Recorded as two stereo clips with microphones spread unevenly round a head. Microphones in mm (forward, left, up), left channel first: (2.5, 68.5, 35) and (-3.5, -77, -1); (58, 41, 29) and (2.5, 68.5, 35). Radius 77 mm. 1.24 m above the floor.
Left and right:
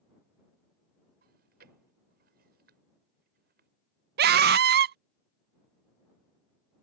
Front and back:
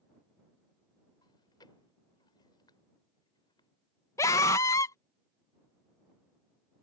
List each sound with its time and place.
1.2 s chewing: 65° right
4.2 s a scream: 80° right